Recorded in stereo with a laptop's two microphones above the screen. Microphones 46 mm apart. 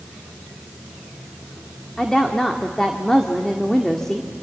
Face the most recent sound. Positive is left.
turn(degrees=10)  # may be behind; listen again after turning